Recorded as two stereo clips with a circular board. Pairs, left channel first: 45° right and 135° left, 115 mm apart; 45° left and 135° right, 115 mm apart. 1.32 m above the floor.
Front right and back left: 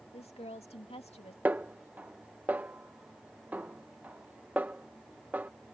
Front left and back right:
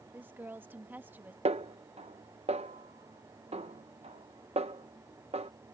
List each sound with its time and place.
0.1 s a woman speaking: 65° right
1.4 s a snare drum: 150° right